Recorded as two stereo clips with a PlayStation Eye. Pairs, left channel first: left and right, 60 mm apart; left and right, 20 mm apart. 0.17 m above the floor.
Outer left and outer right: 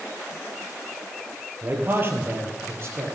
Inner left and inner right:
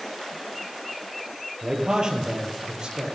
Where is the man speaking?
35° right (ahead or behind), 4.5 m; by 3.1 s 45° right (ahead or behind), 5.5 m.